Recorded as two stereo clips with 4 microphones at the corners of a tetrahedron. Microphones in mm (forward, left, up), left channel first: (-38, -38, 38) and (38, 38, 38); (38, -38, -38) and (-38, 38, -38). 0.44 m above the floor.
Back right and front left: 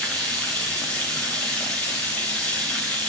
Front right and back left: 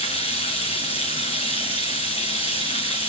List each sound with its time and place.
0.0 s running water: 55° right, 3.5 m